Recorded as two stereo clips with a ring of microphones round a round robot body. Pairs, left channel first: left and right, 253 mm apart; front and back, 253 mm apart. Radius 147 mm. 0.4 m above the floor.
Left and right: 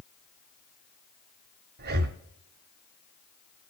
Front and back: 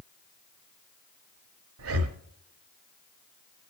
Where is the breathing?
145° right, 0.8 m.